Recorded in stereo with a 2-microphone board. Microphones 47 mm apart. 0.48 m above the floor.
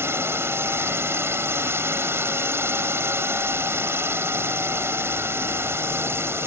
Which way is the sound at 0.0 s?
55° right (ahead or behind).